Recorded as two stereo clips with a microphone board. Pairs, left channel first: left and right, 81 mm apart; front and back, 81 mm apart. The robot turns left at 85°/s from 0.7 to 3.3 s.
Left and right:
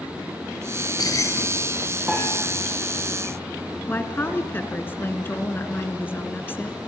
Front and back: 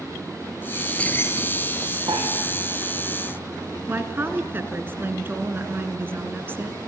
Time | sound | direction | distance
0.7 | keys jangling | 95° left | 1.7 m
2.1 | a piano | 160° right | 7.5 m
3.9 | a woman speaking | 135° left | 1.9 m